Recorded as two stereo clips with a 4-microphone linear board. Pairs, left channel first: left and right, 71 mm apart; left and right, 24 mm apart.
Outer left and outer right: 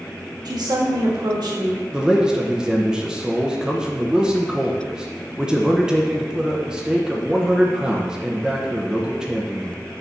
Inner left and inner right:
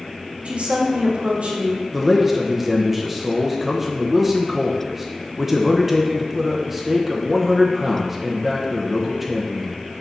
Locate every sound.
0.5 s a woman speaking: 70° right (ahead or behind), 1.6 m
1.9 s a man speaking: 10° right (ahead or behind), 0.8 m